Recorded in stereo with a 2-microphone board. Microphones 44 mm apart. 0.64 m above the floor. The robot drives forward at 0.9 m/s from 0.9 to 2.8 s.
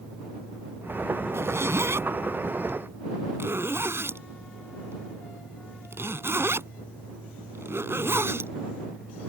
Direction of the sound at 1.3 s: 70° right (ahead or behind).